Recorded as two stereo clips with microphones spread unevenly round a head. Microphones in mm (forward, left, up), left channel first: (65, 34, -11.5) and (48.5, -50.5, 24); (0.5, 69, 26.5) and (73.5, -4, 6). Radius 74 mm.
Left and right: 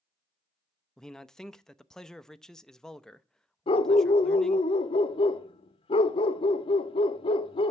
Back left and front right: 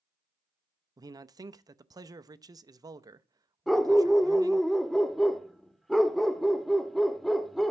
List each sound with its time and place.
1.0 s a man speaking: 5° left, 0.7 m
3.7 s a dog barking: 60° left, 0.6 m